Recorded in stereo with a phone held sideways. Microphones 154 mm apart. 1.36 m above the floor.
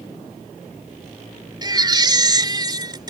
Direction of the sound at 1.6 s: 30° right (ahead or behind).